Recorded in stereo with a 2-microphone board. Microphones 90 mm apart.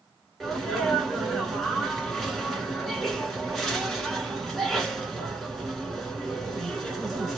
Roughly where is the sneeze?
Centre.